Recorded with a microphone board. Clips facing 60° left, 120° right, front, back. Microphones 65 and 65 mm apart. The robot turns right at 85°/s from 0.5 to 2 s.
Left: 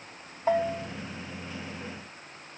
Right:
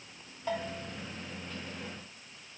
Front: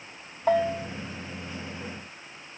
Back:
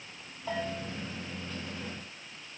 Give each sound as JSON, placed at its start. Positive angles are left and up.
{"t": 0.5, "sound": "a bell", "azimuth_deg": 5, "distance_m": 2.5}